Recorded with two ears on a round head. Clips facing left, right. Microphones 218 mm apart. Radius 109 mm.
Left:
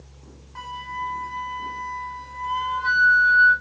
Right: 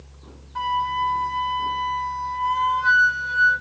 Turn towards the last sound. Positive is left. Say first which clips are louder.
# right 10 dB
turn(degrees=-5)  # may be behind; listen again after turning